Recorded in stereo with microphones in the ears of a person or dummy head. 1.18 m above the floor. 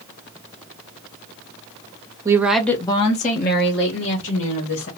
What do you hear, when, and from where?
2.2 s a woman speaking: 15° right (ahead or behind), 0.6 m; by 4.9 s 65° left (ahead or behind), 1.5 m